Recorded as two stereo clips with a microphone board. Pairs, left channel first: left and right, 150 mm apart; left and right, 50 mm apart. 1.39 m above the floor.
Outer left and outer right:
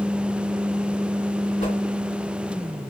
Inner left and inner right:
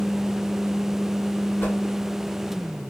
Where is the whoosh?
45° left (ahead or behind), 2 m.